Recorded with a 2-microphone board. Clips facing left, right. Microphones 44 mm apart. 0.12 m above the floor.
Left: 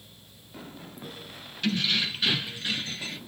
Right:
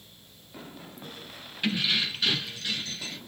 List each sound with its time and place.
1.6 s keys jangling: 20° right (ahead or behind), 0.8 m; by 3.2 s 25° left (ahead or behind), 1.3 m